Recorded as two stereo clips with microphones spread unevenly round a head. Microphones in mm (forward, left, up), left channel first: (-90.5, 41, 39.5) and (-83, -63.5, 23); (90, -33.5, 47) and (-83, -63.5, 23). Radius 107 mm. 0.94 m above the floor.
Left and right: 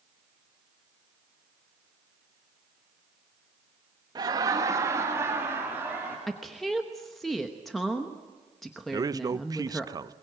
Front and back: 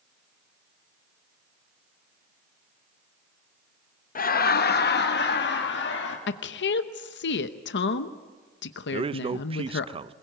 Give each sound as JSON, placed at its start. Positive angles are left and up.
{"t": 4.2, "sound": "laughter", "azimuth_deg": -30, "distance_m": 0.9}
{"t": 6.3, "sound": "a woman speaking", "azimuth_deg": 0, "distance_m": 0.9}
{"t": 8.9, "sound": "a man speaking", "azimuth_deg": -125, "distance_m": 0.6}